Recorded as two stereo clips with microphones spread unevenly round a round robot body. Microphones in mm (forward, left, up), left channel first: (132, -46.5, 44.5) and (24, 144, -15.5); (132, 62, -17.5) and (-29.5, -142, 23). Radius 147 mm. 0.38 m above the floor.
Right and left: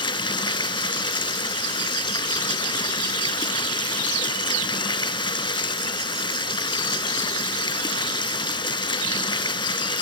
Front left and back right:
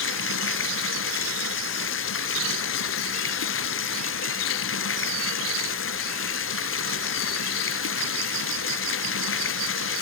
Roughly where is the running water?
Ahead.